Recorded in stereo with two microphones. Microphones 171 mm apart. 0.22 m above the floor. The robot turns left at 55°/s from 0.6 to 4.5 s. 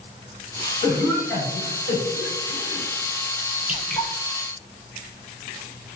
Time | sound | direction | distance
0.8 | a cough | 15° right (ahead or behind) | 2.0 m
3.7 | dripping | 10° right (ahead or behind) | 0.7 m